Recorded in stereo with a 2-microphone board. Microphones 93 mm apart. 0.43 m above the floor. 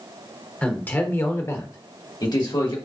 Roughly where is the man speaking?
Centre.